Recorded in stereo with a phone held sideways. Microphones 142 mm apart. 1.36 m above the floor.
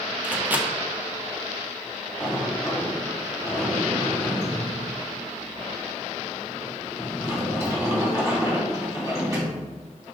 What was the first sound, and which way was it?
A microwave, 10° right (ahead or behind).